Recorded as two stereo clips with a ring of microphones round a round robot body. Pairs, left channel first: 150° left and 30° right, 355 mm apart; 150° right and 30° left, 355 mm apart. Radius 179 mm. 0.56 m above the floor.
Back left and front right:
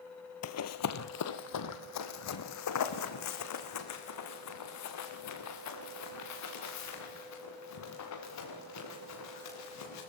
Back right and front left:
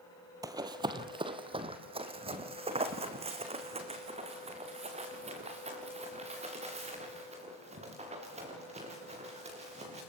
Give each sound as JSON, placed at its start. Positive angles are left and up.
{"t": 0.4, "sound": "running footsteps", "azimuth_deg": 110, "distance_m": 0.8}